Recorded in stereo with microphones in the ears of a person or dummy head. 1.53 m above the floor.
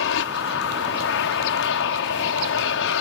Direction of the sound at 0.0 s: 60° left (ahead or behind).